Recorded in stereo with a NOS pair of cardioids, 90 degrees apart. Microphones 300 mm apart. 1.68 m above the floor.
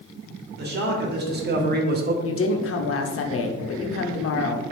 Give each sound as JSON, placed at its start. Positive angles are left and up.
{"t": 0.6, "sound": "a man speaking", "azimuth_deg": -35, "distance_m": 1.4}
{"t": 2.2, "sound": "a woman speaking", "azimuth_deg": 50, "distance_m": 0.7}